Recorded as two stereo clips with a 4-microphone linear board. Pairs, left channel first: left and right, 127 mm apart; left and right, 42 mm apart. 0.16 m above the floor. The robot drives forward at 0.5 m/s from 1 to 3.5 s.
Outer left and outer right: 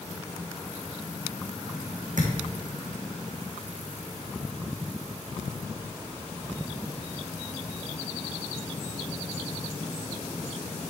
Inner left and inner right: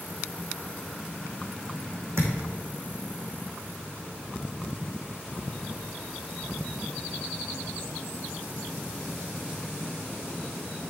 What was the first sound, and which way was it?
A thud, 80° right.